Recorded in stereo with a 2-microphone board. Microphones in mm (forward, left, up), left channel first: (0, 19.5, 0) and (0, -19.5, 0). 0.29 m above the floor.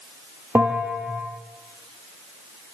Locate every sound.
0.6 s a bell: 75° right (ahead or behind), 5.5 m